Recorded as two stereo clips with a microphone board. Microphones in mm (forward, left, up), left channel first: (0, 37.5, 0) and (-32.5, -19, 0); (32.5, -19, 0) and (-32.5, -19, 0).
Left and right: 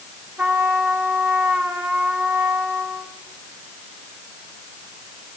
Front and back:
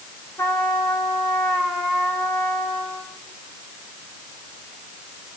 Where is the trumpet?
45° right, 4 m.